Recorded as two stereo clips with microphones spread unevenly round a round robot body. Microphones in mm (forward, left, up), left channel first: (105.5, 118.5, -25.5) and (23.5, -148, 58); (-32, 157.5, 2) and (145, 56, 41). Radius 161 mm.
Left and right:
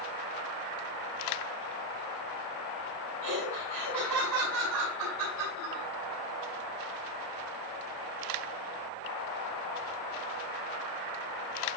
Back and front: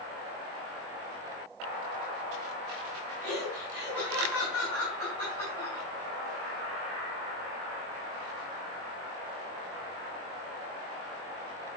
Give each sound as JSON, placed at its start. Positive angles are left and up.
{"t": 3.2, "sound": "laughter", "azimuth_deg": -130, "distance_m": 7.0}